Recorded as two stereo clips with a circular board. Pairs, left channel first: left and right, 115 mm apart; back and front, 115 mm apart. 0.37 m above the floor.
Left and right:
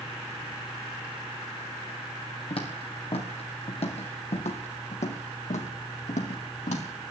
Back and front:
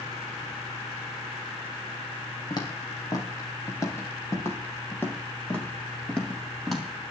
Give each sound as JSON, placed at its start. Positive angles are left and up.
{"t": 2.5, "sound": "footsteps", "azimuth_deg": 125, "distance_m": 5.0}